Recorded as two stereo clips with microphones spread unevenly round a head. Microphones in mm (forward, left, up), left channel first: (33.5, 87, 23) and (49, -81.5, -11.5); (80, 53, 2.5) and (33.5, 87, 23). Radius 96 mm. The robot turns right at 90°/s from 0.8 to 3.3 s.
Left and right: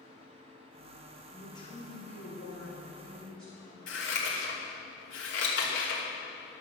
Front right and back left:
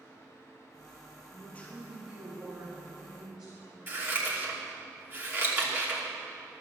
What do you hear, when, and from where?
1.3 s a man speaking: 5° left, 2 m; by 3.8 s 175° right, 2 m
3.9 s scissors: 90° left, 3 m